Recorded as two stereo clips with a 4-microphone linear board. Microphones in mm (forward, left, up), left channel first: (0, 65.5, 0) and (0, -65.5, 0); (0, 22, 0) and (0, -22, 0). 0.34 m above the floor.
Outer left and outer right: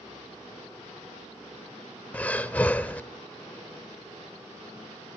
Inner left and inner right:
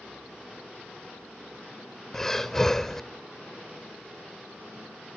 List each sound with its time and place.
2.1 s breathing: 10° left (ahead or behind), 0.9 m